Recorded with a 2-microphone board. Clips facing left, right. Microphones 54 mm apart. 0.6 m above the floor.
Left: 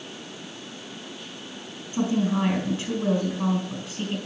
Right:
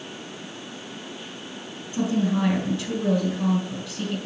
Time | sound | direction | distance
1.9 | a woman speaking | 25° left (ahead or behind) | 4 m